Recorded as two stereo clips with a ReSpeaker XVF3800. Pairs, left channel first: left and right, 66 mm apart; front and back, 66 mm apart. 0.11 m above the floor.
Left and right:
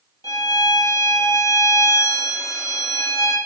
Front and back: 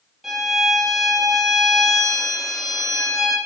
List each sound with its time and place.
0.2 s a violin: 90° left, 4 m